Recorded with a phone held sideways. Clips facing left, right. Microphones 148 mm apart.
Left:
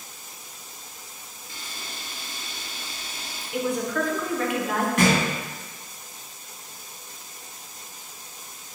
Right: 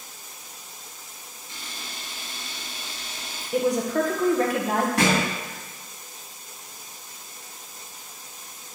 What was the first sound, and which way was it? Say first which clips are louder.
A camera shutter: even; 25° right (ahead or behind).